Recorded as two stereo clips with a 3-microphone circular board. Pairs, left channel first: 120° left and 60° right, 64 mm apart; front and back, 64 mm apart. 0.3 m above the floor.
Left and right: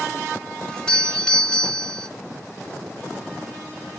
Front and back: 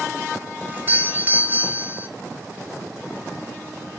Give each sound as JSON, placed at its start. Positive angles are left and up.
{"t": 0.7, "sound": "a doorbell", "azimuth_deg": -175, "distance_m": 1.9}